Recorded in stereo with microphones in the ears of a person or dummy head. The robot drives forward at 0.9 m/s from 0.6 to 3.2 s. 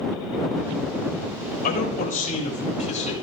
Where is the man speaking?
45° left (ahead or behind), 5 m; by 3.1 s 35° left (ahead or behind), 6 m.